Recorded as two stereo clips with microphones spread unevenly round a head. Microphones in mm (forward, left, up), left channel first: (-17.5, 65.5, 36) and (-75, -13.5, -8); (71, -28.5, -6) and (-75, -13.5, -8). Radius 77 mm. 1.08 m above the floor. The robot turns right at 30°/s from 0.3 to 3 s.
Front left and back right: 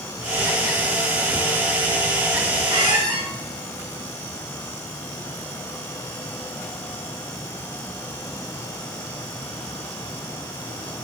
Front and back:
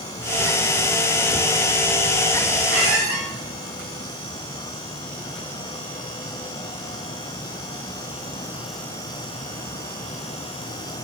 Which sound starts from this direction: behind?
A squeak, at 2.7 s.